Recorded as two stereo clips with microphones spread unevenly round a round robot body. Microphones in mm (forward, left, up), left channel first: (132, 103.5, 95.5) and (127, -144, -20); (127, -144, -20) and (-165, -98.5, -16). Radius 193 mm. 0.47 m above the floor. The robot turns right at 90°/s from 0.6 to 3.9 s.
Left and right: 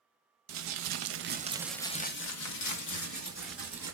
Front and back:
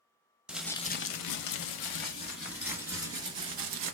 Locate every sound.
0.5 s crumpling: 100° right, 0.8 m; by 3.9 s 165° right, 0.8 m